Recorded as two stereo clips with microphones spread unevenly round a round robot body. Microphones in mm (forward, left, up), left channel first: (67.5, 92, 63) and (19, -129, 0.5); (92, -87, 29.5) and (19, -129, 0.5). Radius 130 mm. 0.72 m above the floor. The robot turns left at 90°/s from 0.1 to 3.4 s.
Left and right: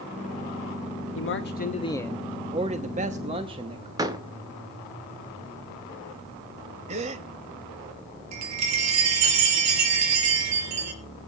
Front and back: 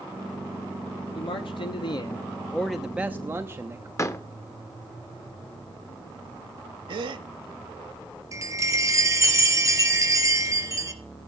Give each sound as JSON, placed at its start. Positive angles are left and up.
{"t": 1.1, "sound": "a man speaking", "azimuth_deg": 65, "distance_m": 1.0}
{"t": 4.0, "sound": "a door slam", "azimuth_deg": -30, "distance_m": 1.3}
{"t": 6.9, "sound": "a gasp", "azimuth_deg": -175, "distance_m": 0.5}
{"t": 8.3, "sound": "a chime", "azimuth_deg": -95, "distance_m": 3.5}